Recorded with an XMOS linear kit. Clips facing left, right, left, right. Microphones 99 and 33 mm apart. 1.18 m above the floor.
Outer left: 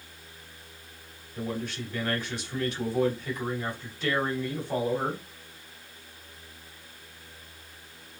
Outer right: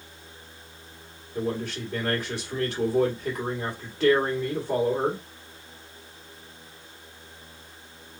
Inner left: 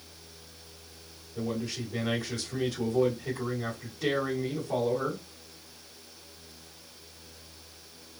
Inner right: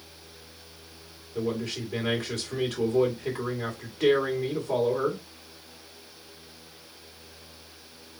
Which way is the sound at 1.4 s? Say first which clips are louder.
Outer right 4 dB, inner right 3 dB; 85° right.